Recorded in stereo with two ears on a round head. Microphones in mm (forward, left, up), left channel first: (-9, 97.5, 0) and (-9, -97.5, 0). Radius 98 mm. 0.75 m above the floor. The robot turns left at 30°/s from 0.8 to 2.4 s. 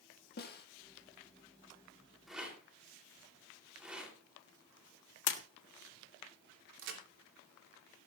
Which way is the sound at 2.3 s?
Centre (ahead or behind).